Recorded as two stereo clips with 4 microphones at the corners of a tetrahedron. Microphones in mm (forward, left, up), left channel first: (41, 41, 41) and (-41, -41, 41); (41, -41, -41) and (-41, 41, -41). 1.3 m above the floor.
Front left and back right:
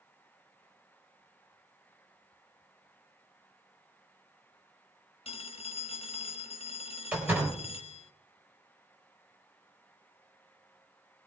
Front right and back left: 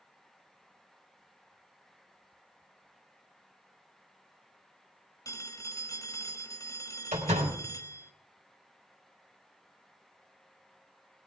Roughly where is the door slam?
Behind left.